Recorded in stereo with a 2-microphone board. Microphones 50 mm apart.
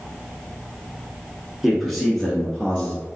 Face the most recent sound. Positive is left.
turn(degrees=25)  # may be behind; listen again after turning